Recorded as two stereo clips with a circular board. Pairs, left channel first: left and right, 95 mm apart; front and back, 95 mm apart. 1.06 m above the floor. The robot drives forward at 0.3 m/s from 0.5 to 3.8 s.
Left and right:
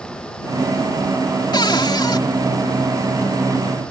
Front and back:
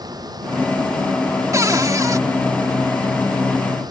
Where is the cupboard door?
125° left; by 2.2 s 130° left.